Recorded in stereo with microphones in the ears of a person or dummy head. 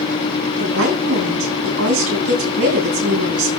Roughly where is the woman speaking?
Right.